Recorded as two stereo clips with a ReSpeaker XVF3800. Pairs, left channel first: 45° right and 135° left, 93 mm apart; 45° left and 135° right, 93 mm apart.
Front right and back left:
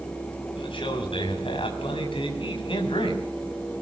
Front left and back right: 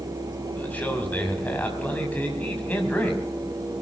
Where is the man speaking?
25° right, 5.5 m.